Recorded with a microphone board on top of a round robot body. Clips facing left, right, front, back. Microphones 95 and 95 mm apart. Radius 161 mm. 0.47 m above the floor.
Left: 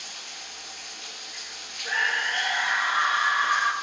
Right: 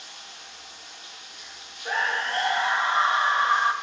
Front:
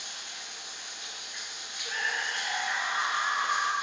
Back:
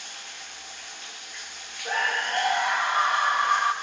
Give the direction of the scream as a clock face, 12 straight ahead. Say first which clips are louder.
Right 1 dB, back 7 dB; 5 o'clock.